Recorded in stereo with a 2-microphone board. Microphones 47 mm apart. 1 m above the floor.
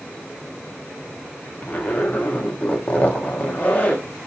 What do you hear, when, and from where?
1.6 s a zipper: 30° left (ahead or behind), 0.8 m